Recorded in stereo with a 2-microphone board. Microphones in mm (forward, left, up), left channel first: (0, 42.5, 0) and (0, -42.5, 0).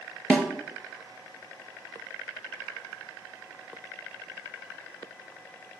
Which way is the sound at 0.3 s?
15° left (ahead or behind).